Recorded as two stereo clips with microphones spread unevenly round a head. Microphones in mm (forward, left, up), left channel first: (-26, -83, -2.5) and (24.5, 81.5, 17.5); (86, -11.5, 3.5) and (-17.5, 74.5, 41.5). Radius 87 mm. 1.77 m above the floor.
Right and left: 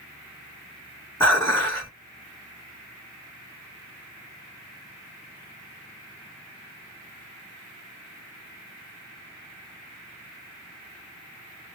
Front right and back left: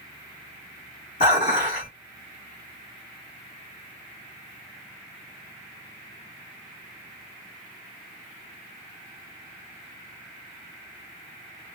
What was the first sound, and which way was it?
Dishes clattering, 30° right.